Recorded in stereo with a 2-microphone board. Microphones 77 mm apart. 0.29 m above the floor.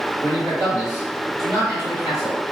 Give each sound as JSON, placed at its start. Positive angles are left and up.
{"t": 0.2, "sound": "a man speaking", "side_deg": -20, "distance_m": 1.7}